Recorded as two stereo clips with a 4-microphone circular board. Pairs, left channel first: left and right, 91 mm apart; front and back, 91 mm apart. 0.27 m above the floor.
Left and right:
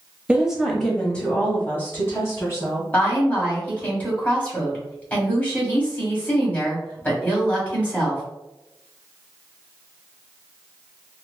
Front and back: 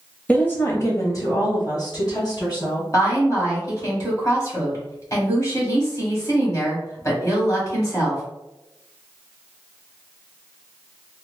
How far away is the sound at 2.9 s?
About 1.6 m.